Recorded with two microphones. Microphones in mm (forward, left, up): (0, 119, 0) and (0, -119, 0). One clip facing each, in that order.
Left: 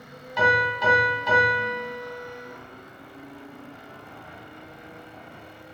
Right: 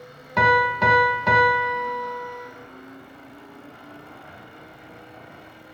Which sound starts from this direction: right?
A piano, at 0.4 s.